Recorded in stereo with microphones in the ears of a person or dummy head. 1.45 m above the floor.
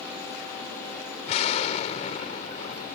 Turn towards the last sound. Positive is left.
turn(degrees=40)  # may be behind; listen again after turning